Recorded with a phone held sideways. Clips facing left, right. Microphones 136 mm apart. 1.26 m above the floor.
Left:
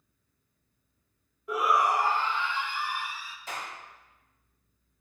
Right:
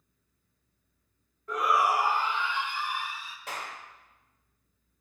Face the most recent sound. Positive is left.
turn(degrees=-80)